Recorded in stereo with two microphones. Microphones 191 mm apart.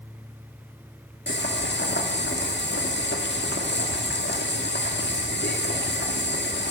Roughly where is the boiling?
Left.